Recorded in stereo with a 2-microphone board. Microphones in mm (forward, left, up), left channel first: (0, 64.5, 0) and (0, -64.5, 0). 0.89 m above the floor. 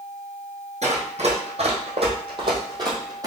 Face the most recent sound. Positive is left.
turn(degrees=-25)  # may be behind; listen again after turning